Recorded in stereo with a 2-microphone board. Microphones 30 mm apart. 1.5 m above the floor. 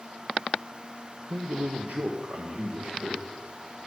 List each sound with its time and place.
1.3 s a man speaking: 55° right (ahead or behind), 0.8 m; by 3.3 s 60° right (ahead or behind), 2 m